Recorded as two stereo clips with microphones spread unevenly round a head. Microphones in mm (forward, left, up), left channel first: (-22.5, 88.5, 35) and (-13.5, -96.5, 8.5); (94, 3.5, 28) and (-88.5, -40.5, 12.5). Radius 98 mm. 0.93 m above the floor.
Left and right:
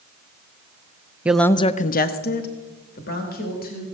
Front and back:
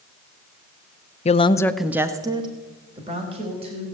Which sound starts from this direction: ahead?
A woman speaking, at 1.2 s.